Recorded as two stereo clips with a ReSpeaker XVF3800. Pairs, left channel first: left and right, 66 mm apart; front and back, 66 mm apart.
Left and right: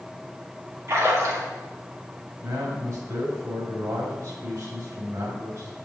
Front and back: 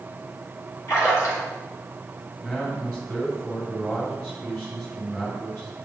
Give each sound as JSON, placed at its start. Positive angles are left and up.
{"t": 0.9, "sound": "a splash", "azimuth_deg": -40, "distance_m": 2.5}
{"t": 2.4, "sound": "a man speaking", "azimuth_deg": -65, "distance_m": 2.0}